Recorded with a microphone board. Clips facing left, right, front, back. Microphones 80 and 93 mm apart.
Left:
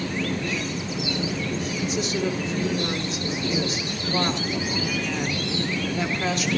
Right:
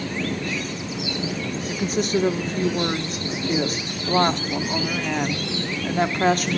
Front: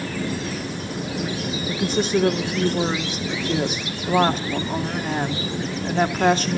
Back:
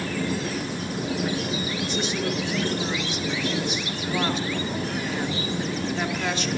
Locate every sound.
1.7 s a woman speaking: 45° right, 2 m